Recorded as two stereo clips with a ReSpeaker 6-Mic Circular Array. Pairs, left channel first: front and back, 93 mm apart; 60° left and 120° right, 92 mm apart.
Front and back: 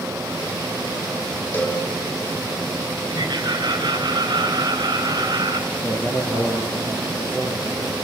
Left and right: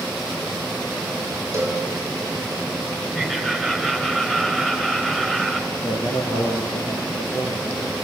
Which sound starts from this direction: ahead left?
A man speaking, at 5.7 s.